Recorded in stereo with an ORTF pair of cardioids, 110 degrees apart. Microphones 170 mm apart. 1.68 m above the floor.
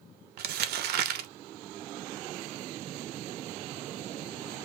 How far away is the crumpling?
About 0.5 m.